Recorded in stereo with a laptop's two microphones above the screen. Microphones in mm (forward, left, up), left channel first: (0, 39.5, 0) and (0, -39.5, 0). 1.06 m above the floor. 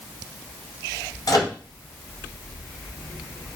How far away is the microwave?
About 0.7 m.